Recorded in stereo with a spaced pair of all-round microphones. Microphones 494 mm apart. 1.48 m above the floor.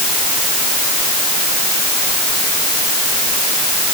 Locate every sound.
Only background noise.